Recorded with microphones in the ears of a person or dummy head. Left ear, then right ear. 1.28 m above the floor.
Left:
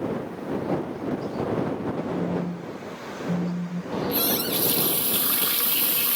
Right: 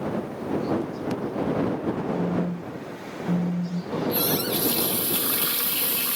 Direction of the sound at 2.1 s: 20° right (ahead or behind).